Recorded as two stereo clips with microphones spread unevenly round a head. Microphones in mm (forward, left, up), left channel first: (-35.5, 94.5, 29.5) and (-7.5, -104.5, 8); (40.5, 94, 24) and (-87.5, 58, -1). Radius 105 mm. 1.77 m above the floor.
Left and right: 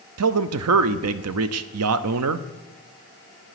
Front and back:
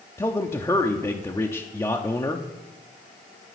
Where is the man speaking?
60° right, 0.5 m.